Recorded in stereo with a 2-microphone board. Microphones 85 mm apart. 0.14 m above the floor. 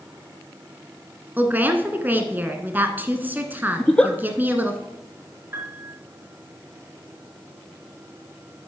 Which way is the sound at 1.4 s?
20° right (ahead or behind).